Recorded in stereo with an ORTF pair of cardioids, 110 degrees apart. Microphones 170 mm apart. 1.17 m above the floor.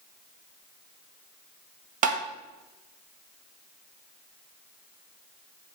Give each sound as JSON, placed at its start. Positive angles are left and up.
{"t": 2.0, "sound": "tapping", "azimuth_deg": -50, "distance_m": 1.2}